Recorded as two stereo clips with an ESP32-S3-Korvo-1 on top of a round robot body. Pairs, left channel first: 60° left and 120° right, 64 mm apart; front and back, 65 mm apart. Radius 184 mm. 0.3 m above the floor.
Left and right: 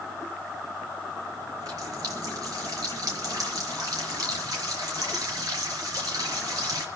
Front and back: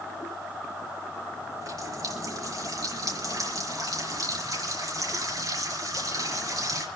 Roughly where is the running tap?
Behind right.